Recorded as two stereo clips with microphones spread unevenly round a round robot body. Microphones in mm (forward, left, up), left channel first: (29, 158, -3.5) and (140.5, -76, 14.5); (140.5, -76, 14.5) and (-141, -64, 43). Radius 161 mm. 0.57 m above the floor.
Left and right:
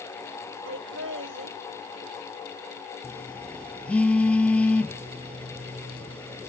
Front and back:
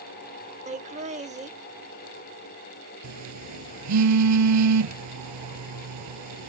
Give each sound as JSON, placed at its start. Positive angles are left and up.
{"t": 0.7, "sound": "laughter", "azimuth_deg": -115}
{"t": 3.0, "sound": "a phone buzzing", "azimuth_deg": -160}